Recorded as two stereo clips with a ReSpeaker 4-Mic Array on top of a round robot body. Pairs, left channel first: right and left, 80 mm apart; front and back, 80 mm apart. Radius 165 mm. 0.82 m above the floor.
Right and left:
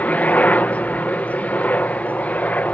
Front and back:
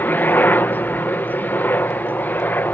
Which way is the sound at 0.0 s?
40° right.